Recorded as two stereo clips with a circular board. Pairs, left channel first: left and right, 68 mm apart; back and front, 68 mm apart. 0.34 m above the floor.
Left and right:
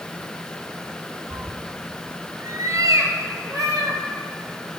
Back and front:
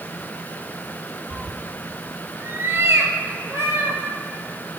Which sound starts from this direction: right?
A cat meowing, at 1.3 s.